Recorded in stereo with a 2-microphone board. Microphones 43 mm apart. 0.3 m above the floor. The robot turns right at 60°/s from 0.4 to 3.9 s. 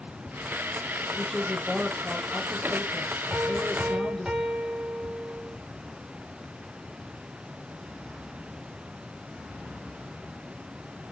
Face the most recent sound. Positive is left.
turn(degrees=-25)